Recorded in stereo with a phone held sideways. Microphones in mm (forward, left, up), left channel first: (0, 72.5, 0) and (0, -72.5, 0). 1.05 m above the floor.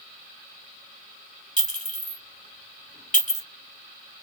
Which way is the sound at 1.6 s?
60° left (ahead or behind).